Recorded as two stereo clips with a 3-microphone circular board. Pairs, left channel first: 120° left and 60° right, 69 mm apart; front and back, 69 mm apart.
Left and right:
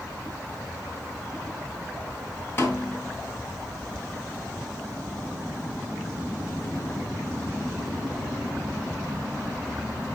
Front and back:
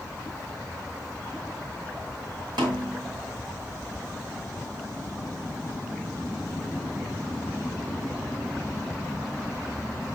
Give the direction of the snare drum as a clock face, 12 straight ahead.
6 o'clock.